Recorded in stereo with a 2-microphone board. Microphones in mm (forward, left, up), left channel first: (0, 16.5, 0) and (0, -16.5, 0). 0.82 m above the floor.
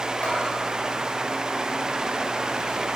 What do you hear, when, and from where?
0.2 s a bell: 40° left (ahead or behind), 2.5 m